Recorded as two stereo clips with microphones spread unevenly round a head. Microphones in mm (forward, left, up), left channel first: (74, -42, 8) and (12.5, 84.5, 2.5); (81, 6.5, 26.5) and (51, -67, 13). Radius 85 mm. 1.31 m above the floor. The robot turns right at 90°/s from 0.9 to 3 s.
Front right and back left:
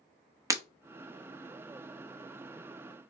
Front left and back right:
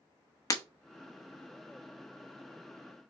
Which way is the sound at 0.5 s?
50° left.